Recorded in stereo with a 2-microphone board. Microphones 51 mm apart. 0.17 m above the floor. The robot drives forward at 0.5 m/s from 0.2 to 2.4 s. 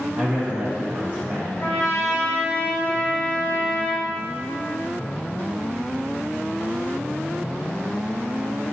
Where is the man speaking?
25° right (ahead or behind), 1.3 m.